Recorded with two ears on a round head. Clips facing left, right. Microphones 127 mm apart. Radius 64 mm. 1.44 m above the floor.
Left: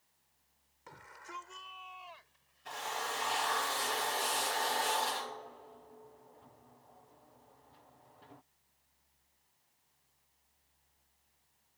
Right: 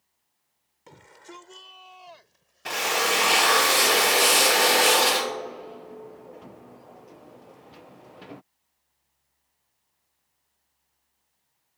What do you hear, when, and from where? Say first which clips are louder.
0.9 s a shout: right 4 dB; 30° right (ahead or behind); by 3.1 s 60° right (ahead or behind)
2.6 s a drill: right 13 dB; 80° right